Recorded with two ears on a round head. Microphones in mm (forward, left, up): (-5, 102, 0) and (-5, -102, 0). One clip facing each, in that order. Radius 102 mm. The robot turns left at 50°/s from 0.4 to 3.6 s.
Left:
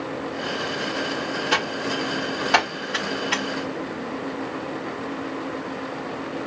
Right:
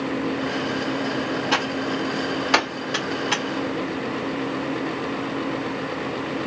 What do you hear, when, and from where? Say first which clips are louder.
1.5 s typing on a keyboard: right 2 dB; 15° left (ahead or behind), 2 m; by 3.4 s 75° right (ahead or behind), 2 m